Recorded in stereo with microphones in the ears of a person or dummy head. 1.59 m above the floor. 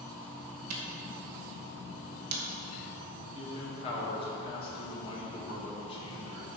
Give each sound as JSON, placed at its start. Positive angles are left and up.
{"t": 0.7, "sound": "a camera shutter", "side_deg": -60, "distance_m": 2.0}
{"t": 3.3, "sound": "a man speaking", "side_deg": 30, "distance_m": 2.5}